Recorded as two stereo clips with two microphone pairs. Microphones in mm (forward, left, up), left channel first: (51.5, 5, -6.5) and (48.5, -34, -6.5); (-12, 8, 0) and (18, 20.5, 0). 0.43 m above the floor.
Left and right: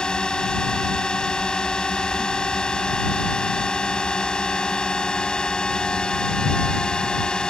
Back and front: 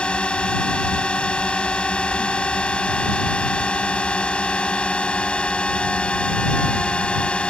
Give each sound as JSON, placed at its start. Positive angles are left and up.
{"t": 0.0, "sound": "a drone", "azimuth_deg": 150}